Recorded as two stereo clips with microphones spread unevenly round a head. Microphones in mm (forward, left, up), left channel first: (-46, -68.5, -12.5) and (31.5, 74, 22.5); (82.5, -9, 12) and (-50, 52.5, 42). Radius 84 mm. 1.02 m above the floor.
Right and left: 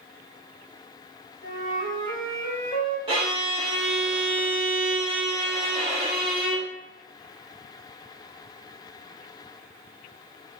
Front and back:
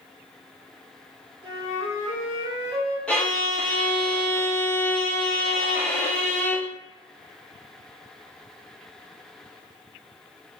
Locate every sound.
1.4 s a flute: 30° right, 1.8 m
3.1 s a violin: 20° left, 0.7 m